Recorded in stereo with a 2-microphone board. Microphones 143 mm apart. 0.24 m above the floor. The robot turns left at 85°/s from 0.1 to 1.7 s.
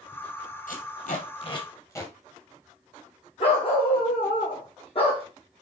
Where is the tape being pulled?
75° left (ahead or behind), 2.5 m; by 2.1 s 20° left (ahead or behind), 2.5 m.